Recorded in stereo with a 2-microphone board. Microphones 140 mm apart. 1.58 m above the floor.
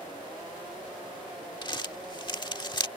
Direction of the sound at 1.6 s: 35° left (ahead or behind).